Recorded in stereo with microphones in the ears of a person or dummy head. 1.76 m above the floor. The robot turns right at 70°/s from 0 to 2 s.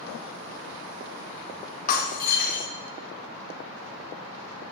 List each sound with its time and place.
1.9 s breaking glass: 45° left (ahead or behind), 1.7 m; by 2.7 s 50° left (ahead or behind), 1.7 m